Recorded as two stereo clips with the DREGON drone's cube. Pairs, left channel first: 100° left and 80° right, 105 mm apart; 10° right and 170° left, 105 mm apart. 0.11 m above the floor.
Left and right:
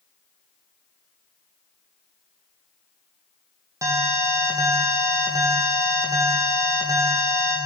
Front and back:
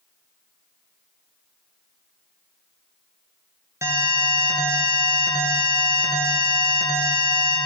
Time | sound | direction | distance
3.8 | an alarm | 135° right | 2.5 m